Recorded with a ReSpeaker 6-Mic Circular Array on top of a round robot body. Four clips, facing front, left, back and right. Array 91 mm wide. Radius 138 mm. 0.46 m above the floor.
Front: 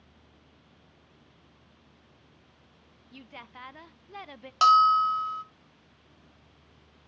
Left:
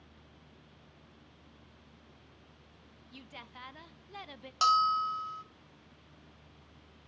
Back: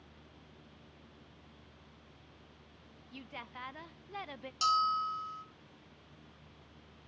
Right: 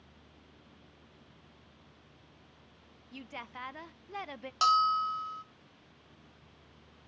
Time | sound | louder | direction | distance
3.1 | a woman speaking | right 6 dB, front 1 dB | 90° right | 0.7 m
4.6 | a bell | even, front 11 dB | straight ahead | 0.5 m